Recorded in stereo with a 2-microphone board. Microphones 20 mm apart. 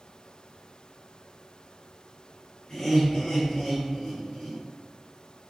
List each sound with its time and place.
2.7 s laughter: 35° left (ahead or behind), 1.6 m